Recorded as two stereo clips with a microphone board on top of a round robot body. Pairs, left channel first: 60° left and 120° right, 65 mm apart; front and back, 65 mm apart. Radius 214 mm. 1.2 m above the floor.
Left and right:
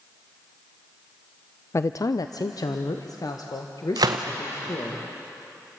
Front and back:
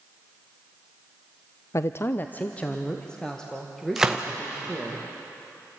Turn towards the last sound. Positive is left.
turn(degrees=-100)